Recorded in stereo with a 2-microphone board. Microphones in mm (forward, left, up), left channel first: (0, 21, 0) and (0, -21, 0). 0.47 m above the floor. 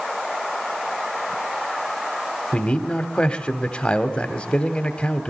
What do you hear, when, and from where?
2.5 s a man speaking: 25° left (ahead or behind), 2.5 m